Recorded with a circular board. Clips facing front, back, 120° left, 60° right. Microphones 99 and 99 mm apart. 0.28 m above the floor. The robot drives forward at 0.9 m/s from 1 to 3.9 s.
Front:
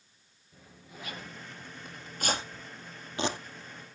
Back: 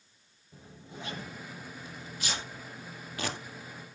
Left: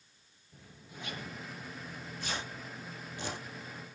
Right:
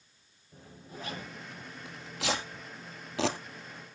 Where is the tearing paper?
40° right, 2.5 m; by 3.4 s 70° right, 1.6 m.